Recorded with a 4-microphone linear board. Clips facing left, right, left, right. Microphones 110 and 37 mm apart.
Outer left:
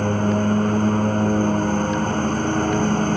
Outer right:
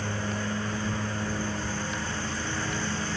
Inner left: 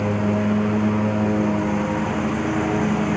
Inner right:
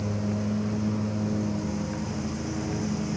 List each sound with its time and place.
0.0 s a lawn mower: 50° left (ahead or behind)